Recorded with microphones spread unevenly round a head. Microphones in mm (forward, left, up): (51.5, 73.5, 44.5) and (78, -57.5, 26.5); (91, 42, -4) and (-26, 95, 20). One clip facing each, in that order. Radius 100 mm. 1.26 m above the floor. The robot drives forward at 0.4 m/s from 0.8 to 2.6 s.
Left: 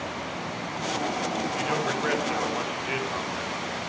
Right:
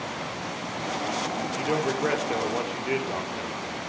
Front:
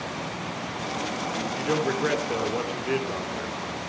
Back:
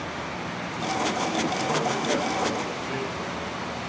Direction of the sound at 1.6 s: 25° right.